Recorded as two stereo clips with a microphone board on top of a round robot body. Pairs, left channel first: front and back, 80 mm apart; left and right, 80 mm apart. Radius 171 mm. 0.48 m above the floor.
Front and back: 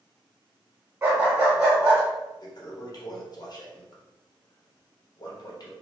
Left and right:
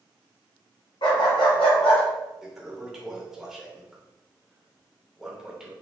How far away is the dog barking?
About 1.3 m.